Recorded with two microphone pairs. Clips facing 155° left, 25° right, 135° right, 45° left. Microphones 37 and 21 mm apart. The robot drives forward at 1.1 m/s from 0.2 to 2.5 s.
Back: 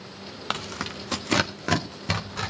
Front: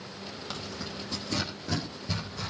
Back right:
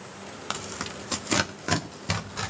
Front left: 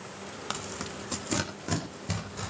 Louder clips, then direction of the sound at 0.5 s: Back 9 dB, back right 3 dB; 145° left.